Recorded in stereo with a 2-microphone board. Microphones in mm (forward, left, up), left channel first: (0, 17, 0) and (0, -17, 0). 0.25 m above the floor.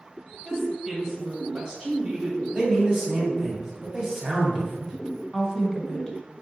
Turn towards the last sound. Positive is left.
turn(degrees=20)  # may be behind; listen again after turning